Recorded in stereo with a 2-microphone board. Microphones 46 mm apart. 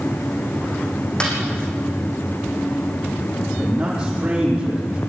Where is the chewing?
No chewing in this recording.